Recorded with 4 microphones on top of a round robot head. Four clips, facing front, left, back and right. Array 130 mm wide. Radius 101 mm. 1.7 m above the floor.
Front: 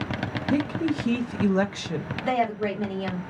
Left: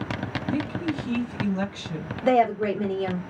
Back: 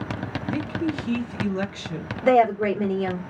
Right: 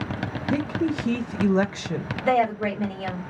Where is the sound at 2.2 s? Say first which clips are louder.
Left 2 dB, back 8 dB; 150° left, 1.2 m.